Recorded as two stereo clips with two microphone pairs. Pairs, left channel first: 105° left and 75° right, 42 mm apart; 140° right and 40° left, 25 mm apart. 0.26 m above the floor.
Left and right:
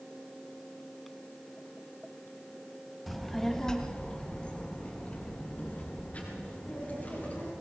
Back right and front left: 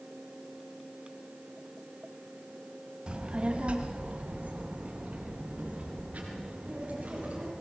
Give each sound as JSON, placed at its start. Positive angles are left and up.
{"t": 3.1, "sound": "a child speaking", "azimuth_deg": 15, "distance_m": 1.3}